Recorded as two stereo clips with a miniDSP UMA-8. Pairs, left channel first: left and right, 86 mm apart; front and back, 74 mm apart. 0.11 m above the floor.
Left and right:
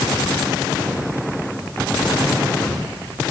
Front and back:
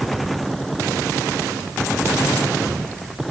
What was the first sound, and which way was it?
Only background noise.